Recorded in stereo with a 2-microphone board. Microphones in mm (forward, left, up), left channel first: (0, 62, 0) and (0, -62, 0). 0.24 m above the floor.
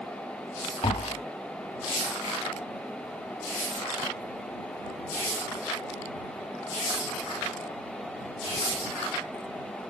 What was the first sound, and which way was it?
Tapping, 55° left (ahead or behind).